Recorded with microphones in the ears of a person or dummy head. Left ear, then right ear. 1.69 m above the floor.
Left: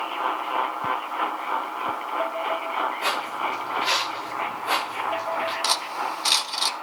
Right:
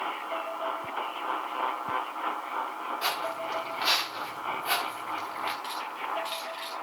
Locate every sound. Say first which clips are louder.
3.0 s footsteps: left 5 dB; 45° right (ahead or behind), 9 m
5.6 s cutlery clinking: left 9 dB; 45° left (ahead or behind), 1.3 m